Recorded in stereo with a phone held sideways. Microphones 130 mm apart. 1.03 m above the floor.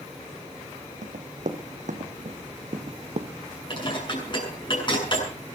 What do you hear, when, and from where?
1.0 s running footsteps: 70° right (ahead or behind), 3 m; by 3.3 s 55° right (ahead or behind), 1.8 m
3.7 s dishes clattering: 40° left (ahead or behind), 8 m